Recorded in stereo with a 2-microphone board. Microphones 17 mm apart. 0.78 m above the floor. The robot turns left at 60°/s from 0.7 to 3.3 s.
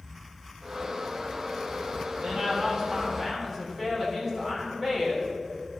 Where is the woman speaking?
95° right, 3 m; by 5.3 s 160° right, 3 m.